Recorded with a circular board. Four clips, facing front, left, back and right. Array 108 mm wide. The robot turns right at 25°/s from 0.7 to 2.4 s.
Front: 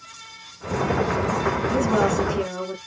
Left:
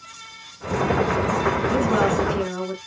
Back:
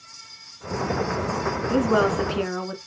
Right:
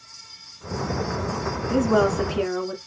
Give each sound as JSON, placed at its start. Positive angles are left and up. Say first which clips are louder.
{"t": 1.7, "sound": "a woman speaking", "louder": "right 3 dB, back 2 dB", "azimuth_deg": 165, "distance_m": 1.1}